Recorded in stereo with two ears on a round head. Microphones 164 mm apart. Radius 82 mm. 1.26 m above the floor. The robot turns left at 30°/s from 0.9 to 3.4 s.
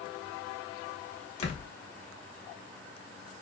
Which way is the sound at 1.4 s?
35° left (ahead or behind).